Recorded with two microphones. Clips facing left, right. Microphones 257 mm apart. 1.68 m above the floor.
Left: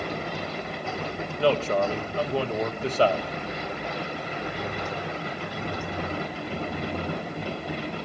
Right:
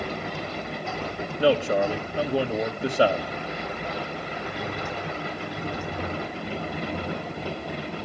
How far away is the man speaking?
About 1.8 m.